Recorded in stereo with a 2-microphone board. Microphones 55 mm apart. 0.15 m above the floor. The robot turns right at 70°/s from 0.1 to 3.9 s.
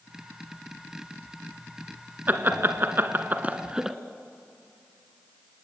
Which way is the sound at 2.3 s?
35° right (ahead or behind).